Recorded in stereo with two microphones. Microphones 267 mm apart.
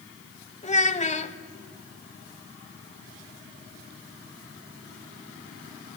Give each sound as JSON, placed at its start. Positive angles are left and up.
{"t": 0.6, "sound": "a child speaking", "side_deg": 25, "distance_m": 0.7}